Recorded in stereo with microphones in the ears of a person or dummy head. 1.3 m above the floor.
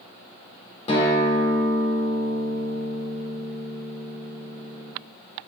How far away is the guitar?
About 1.9 m.